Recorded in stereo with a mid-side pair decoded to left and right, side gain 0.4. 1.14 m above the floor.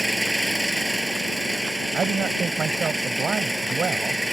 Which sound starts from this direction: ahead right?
A man speaking, at 1.9 s.